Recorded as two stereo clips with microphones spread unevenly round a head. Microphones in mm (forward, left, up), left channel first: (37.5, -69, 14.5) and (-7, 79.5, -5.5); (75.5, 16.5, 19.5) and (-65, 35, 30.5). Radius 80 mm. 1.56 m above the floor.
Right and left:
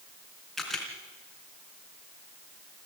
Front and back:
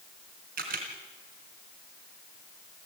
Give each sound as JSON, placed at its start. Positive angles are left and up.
{"t": 0.6, "sound": "a camera shutter", "azimuth_deg": -160, "distance_m": 3.5}